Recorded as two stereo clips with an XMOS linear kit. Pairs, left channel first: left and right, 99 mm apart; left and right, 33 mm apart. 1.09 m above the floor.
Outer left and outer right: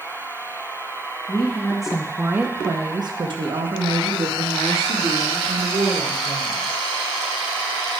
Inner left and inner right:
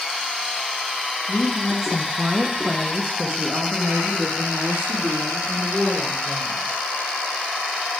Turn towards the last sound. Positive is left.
turn(degrees=-85)